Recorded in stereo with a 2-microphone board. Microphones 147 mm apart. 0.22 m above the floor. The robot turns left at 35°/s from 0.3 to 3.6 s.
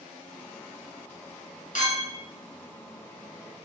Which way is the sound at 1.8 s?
60° left (ahead or behind).